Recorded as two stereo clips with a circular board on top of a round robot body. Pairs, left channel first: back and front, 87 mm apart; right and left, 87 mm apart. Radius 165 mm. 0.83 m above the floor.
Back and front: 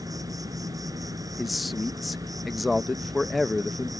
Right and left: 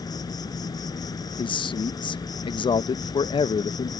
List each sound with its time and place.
0.0 s an insect: 50° right
1.4 s a man speaking: 90° right